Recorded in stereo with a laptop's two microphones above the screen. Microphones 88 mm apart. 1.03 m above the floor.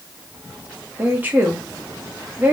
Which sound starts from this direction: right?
A woman speaking, at 1.0 s.